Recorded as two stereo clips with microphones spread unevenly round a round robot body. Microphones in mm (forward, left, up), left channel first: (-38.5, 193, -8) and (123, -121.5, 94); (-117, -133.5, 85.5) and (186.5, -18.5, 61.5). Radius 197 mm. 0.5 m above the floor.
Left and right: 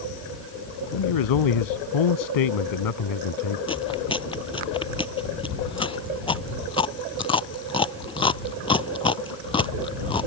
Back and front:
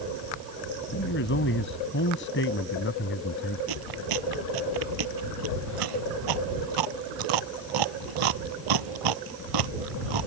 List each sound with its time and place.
0.9 s a man speaking: 140° left
3.7 s chewing: 40° left